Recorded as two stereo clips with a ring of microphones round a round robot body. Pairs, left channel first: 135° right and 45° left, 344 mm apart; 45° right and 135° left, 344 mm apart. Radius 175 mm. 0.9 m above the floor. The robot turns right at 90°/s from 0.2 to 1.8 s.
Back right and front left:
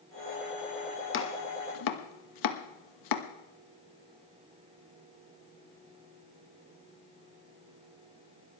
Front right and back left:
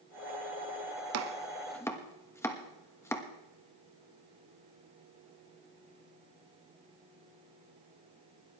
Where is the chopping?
175° left, 1.4 m; by 3.3 s 125° right, 1.4 m.